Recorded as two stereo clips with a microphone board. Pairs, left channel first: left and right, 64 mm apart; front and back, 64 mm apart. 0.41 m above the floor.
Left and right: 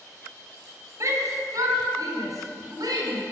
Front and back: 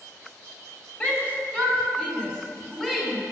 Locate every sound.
1.0 s a shout: 65° right, 2.5 m; by 3.2 s 85° right, 4.5 m